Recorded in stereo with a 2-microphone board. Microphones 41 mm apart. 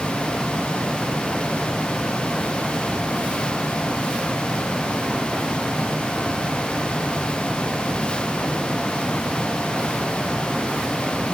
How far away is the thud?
I don't hear a thud.